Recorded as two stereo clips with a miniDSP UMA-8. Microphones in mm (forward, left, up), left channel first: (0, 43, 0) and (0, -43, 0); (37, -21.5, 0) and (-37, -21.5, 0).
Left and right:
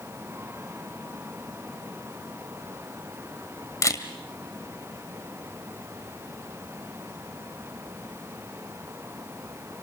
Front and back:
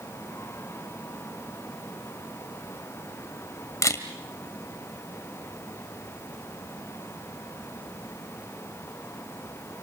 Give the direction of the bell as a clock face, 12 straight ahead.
I don't hear a bell.